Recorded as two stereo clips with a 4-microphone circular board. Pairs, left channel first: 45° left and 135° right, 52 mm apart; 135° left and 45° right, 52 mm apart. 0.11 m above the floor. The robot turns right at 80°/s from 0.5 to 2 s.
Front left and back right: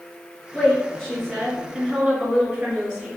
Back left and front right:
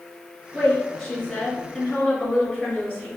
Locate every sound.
0.5 s a woman speaking: 50° left, 1.6 m; by 3.1 s 165° left, 1.6 m